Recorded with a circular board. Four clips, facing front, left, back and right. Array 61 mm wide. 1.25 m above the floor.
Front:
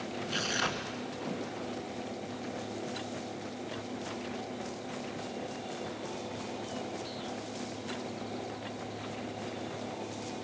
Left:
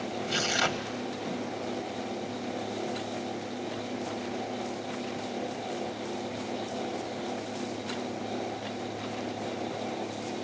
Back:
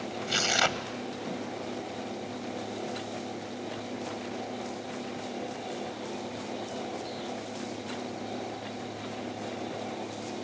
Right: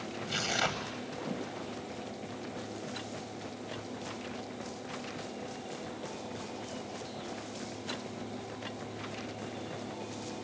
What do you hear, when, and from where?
0.3 s tearing paper: 165° left, 1.4 m